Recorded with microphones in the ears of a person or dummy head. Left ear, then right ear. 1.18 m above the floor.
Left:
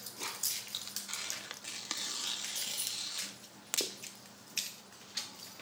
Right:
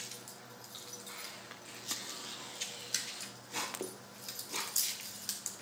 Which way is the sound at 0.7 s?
85° left.